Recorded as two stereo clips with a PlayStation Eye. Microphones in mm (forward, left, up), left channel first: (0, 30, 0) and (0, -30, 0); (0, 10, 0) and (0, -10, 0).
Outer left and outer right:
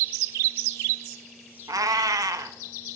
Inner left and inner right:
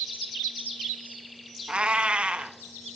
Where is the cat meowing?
80° right, 0.8 m.